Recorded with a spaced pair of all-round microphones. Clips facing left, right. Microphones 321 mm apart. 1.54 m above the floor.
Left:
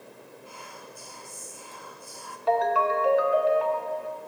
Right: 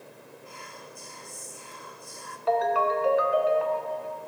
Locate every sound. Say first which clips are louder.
0.5 s whispering: even; 25° right (ahead or behind), 1.2 m
2.5 s a ringtone: even; centre (ahead or behind), 1.4 m